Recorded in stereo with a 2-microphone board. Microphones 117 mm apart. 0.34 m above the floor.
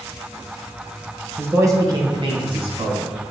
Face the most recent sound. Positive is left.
turn(degrees=-60)  # may be behind; listen again after turning